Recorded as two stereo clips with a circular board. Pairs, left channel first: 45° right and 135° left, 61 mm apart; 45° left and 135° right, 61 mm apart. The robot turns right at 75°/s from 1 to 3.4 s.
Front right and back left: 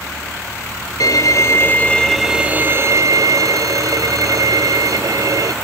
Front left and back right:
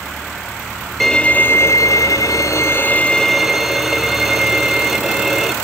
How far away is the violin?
About 0.8 m.